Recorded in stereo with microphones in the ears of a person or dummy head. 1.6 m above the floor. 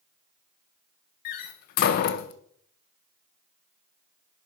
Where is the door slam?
55° left (ahead or behind), 0.6 m.